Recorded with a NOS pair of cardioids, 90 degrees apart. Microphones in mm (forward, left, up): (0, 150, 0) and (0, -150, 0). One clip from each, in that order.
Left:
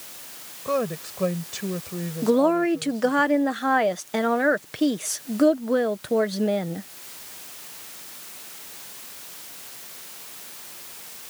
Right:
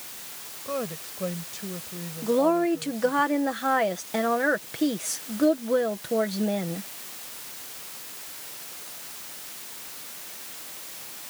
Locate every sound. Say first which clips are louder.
0.7 s a woman speaking: left 6 dB; 55° left
2.2 s a woman speaking: left 2 dB; 55° left